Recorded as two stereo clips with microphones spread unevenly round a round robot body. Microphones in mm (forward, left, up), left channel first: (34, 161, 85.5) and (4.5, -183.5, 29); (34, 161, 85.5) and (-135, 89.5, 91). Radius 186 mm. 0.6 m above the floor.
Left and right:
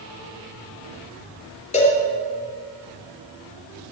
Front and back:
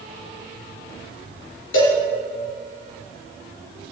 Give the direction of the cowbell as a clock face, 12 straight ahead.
11 o'clock.